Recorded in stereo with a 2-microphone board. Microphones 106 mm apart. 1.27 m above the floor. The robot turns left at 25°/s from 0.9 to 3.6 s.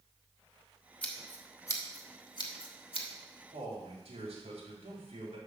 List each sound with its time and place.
1.0 s scissors: 15° left (ahead or behind), 1.3 m; by 3.1 s 55° left (ahead or behind), 1.3 m
3.5 s a man speaking: 65° right (ahead or behind), 3 m